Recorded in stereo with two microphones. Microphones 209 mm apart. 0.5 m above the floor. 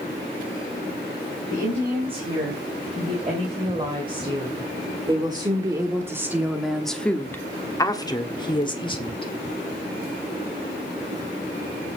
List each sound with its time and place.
1.5 s a woman speaking: 30° right (ahead or behind), 4 m; by 9.3 s 25° left (ahead or behind), 2 m